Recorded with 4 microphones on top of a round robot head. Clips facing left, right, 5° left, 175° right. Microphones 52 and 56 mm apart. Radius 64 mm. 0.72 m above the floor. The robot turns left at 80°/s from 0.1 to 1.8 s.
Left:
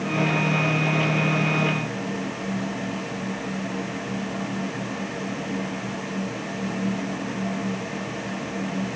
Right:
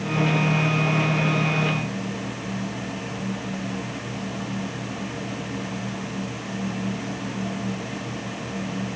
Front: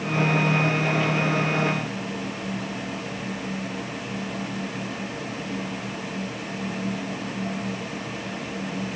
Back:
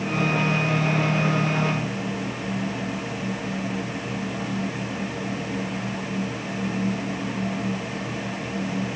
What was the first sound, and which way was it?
Only background noise.